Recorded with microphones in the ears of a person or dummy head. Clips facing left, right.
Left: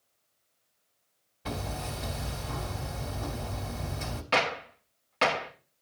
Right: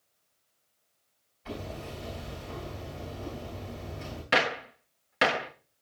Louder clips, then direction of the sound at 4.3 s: Right 1 dB; 15° right (ahead or behind).